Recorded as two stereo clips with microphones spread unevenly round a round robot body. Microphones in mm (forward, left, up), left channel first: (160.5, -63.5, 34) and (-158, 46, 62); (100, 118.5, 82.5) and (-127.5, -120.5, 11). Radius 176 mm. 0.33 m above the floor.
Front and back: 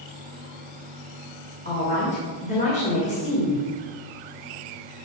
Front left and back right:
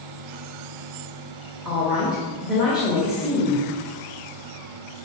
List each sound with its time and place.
1.6 s a woman speaking: 65° right, 1.6 m